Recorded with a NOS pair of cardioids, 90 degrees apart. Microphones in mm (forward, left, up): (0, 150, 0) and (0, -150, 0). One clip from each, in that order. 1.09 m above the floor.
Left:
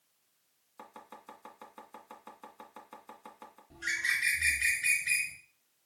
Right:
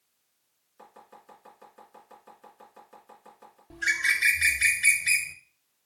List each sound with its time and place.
0.8 s chopping: 45° left, 1.7 m
3.7 s a bird: 50° right, 0.9 m